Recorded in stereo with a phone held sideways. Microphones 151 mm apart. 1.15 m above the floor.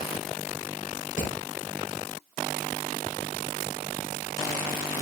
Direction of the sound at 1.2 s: 60° left (ahead or behind).